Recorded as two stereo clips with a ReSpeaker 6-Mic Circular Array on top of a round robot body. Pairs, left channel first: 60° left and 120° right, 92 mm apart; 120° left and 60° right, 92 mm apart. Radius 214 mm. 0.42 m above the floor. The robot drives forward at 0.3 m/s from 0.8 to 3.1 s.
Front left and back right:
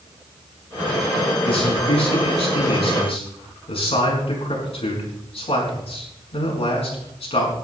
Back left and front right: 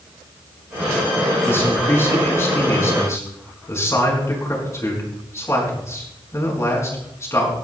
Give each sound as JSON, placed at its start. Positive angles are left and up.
{"t": 1.4, "sound": "a man speaking", "azimuth_deg": 55, "distance_m": 6.0}